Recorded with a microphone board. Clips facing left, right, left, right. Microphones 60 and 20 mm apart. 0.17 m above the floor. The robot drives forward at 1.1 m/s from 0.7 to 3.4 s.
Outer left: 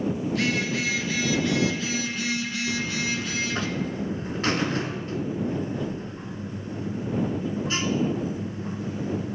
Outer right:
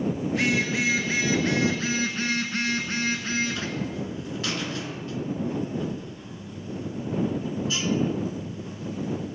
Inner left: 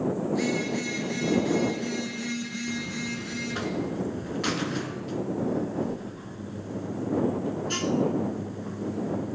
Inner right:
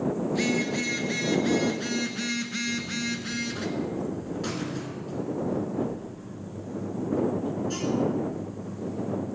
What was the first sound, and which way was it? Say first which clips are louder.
A phone buzzing: outer right 3 dB, inner right 1 dB; 20° right (ahead or behind).